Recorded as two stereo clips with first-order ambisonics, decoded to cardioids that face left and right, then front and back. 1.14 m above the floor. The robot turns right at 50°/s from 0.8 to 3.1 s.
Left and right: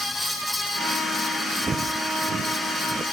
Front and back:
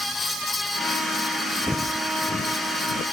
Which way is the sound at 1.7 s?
65° right.